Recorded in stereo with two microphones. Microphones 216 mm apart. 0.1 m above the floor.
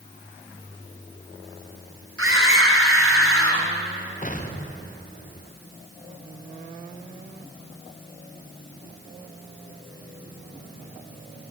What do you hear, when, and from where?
2.2 s a scream: 75° right (ahead or behind), 5.5 m
4.2 s an explosion: 35° left (ahead or behind), 3 m